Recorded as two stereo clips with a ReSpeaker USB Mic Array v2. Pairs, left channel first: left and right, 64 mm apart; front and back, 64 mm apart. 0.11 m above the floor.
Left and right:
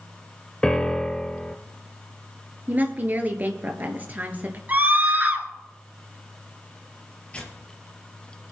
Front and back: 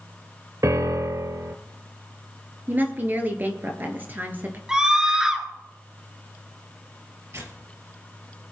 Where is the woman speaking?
135° right, 1.5 m.